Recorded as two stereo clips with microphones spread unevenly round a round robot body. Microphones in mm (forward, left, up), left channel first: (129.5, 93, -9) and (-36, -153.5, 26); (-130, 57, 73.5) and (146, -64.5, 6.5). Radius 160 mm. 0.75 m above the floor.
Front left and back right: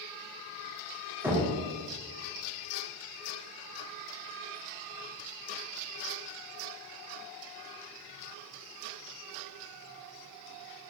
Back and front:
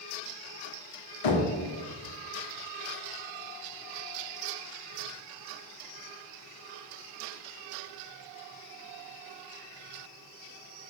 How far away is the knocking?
About 1.4 m.